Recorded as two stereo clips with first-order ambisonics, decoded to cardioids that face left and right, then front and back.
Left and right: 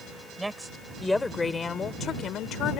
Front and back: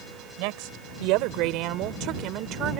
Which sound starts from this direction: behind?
A woman speaking, at 0.4 s.